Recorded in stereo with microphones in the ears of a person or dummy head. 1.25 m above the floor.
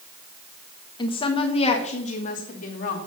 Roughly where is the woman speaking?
Left.